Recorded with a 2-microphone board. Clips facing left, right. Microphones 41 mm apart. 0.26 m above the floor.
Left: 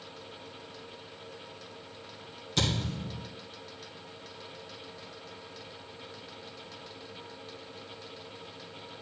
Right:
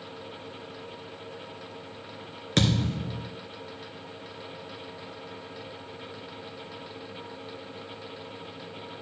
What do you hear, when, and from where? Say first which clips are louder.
2.6 s a thud: right 5 dB; 75° right (ahead or behind), 2.0 m